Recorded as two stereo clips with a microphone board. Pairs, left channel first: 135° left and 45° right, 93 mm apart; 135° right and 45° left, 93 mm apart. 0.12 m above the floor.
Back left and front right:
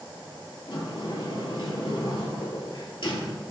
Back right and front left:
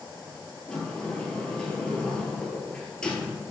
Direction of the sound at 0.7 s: 145° left.